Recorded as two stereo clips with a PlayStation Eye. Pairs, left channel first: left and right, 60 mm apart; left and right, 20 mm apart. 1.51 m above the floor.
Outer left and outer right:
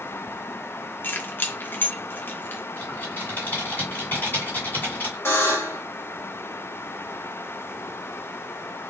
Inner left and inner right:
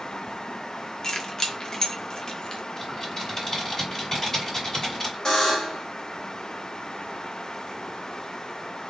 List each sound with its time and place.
1.0 s keys jangling: 40° left (ahead or behind), 0.7 m
2.8 s typing on a keyboard: 30° left (ahead or behind), 2 m
5.2 s a buzzer: 45° left (ahead or behind), 1.7 m